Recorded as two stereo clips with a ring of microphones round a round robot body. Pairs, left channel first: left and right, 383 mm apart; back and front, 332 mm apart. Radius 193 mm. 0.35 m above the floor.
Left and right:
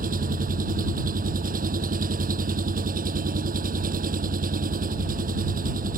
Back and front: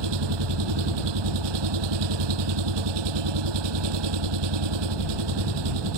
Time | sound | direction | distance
0.0 | an engine running | 20° right | ?